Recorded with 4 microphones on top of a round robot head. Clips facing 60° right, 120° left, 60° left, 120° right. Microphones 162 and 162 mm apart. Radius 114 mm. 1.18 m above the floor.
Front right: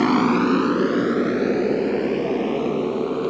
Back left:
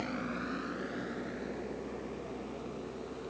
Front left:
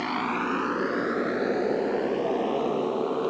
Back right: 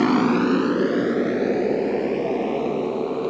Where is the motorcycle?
80° right; by 3.3 s 40° right.